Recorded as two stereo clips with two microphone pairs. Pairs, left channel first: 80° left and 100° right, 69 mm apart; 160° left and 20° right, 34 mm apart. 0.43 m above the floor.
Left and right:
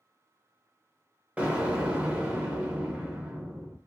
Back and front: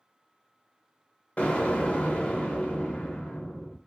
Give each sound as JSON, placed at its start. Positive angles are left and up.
{"t": 1.4, "sound": "an explosion", "azimuth_deg": -170, "distance_m": 0.7}